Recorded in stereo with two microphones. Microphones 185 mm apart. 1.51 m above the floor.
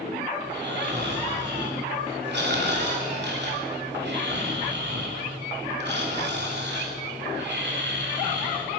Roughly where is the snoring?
Right.